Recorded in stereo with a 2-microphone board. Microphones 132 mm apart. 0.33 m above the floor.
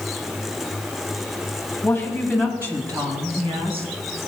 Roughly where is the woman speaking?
Centre.